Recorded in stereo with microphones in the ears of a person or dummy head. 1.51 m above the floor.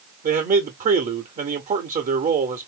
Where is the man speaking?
30° right (ahead or behind), 0.8 m.